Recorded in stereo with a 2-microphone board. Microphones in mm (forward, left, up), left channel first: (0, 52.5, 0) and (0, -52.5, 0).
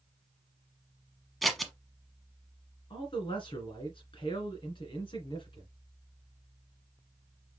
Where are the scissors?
Centre (ahead or behind), 1.0 m.